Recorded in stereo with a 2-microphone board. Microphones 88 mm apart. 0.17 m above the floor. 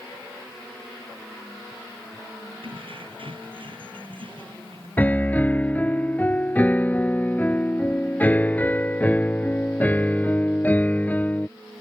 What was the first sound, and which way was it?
Keys jangling, 75° right (ahead or behind).